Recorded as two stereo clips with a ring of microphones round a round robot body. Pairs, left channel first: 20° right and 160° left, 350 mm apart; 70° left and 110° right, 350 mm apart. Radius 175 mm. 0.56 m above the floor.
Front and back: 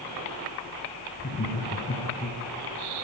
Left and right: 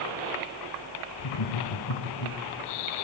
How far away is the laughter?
About 4.5 m.